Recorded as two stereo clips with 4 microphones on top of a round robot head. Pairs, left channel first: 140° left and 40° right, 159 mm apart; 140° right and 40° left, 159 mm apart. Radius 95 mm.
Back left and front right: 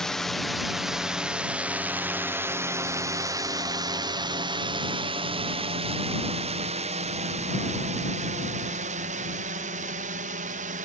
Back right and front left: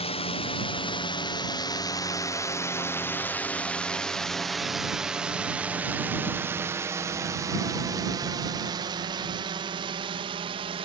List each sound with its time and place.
0.0 s a drone: 135° right; by 10.8 s 10° right